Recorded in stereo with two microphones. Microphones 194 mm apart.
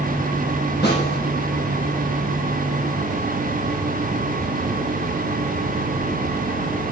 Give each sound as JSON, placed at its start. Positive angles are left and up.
{"t": 0.8, "sound": "a snare drum", "side_deg": 60, "distance_m": 4.5}